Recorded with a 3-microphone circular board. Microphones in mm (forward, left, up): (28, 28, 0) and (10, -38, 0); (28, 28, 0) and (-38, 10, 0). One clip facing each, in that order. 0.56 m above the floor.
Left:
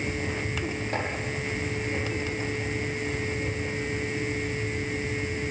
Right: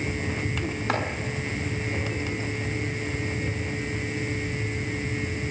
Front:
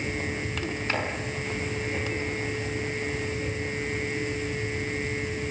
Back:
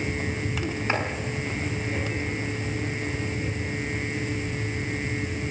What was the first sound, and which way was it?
Chopping, 100° right.